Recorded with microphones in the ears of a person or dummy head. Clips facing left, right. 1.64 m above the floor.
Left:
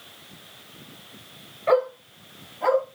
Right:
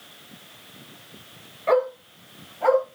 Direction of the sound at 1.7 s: 5° left (ahead or behind).